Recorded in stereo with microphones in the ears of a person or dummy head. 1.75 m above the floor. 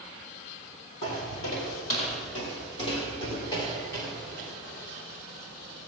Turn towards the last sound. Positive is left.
turn(degrees=5)  # may be behind; listen again after turning